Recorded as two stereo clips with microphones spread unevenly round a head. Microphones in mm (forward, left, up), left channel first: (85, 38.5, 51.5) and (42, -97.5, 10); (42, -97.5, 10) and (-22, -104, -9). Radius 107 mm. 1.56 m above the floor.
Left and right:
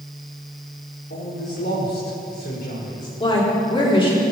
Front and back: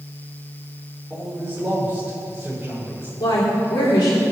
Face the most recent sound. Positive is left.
turn(degrees=20)